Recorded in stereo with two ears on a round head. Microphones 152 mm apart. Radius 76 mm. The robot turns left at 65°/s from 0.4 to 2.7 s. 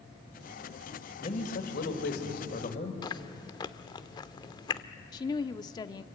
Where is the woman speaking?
25° left (ahead or behind), 0.7 m.